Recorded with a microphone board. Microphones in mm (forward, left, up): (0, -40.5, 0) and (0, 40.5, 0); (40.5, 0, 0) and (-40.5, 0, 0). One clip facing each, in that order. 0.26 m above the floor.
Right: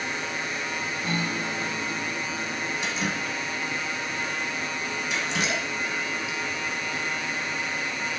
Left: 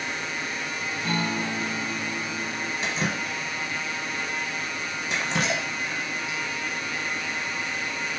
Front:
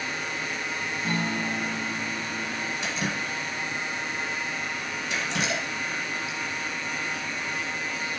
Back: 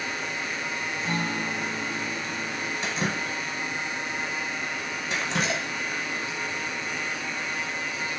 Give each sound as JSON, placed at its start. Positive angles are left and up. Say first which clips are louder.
{"t": 1.0, "sound": "a guitar", "louder": "left 3 dB, front 1 dB", "azimuth_deg": 85, "distance_m": 1.7}
{"t": 2.8, "sound": "dripping", "louder": "left 3 dB, back 3 dB", "azimuth_deg": 135, "distance_m": 0.7}